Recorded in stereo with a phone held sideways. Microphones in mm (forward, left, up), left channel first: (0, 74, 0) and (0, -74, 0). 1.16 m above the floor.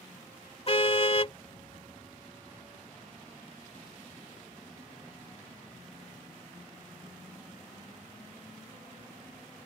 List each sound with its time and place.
0.7 s a car horn: 40° left (ahead or behind)